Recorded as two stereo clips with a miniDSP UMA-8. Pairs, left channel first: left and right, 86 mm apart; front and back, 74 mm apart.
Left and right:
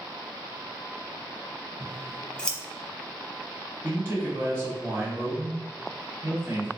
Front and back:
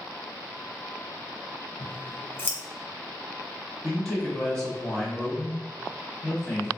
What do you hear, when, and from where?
1.8 s scissors: 20° left, 0.7 m
3.8 s a man speaking: 70° right, 1.1 m